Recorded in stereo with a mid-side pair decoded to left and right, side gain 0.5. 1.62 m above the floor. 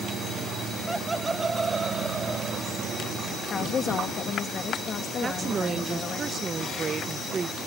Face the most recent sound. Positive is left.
turn(degrees=-35)